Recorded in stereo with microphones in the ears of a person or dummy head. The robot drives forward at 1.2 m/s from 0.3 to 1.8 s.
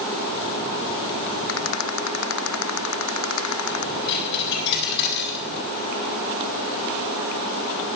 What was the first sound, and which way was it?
A rattle, 75° left (ahead or behind).